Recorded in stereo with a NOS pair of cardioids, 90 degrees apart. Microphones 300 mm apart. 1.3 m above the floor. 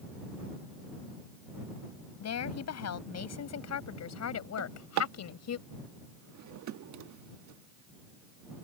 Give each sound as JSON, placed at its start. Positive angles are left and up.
{"t": 2.2, "sound": "a woman speaking", "azimuth_deg": 60}
{"t": 4.6, "sound": "a drawer", "azimuth_deg": -70}